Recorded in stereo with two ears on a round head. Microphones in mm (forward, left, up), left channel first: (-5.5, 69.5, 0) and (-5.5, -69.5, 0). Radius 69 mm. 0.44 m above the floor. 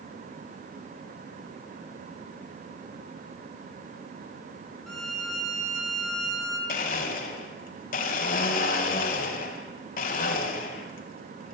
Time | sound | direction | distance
4.9 | a violin | 5° left (ahead or behind) | 4 m
6.7 | a blender | 55° left (ahead or behind) | 3 m